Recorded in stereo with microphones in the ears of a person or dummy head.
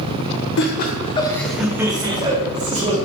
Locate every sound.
0.6 s laughter: 60° left (ahead or behind), 0.6 m; by 3.0 s 35° right (ahead or behind), 1.2 m